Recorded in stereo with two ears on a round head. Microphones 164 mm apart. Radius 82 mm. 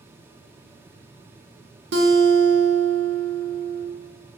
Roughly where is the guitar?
Right.